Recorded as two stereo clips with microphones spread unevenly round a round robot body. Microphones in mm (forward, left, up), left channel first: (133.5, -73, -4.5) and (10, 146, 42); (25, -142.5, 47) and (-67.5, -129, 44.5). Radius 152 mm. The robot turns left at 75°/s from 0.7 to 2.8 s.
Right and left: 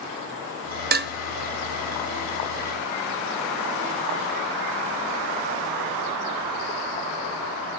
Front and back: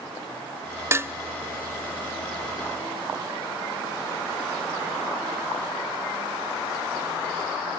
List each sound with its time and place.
0.9 s dishes clattering: 150° left, 0.6 m; by 1.1 s 135° left, 0.6 m